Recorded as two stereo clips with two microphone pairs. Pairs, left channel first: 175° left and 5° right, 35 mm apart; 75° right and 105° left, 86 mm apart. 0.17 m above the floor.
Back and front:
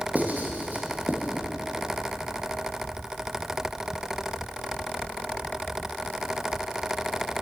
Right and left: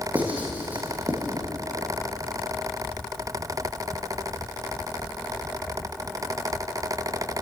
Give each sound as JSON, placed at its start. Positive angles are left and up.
{"t": 0.1, "sound": "writing", "azimuth_deg": 30, "distance_m": 3.5}